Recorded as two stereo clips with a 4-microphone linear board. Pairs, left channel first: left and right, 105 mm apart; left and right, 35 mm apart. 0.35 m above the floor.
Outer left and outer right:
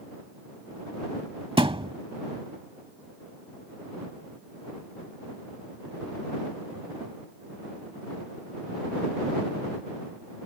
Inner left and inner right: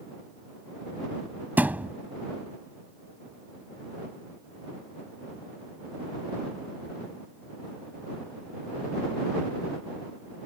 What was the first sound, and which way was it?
A thud, 60° right (ahead or behind).